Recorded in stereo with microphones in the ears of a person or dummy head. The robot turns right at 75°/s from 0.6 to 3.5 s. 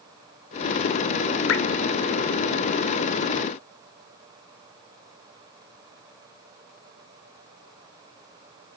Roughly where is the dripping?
Left.